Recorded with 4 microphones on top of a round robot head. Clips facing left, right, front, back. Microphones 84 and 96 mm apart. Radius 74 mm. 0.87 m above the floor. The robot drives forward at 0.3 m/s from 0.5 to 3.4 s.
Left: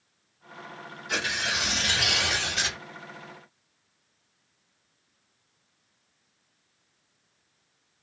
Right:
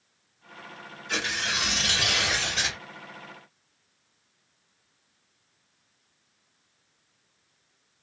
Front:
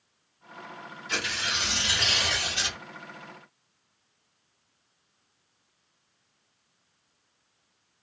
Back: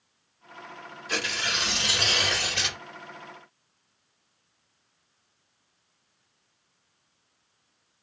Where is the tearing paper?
175° left, 1.3 m.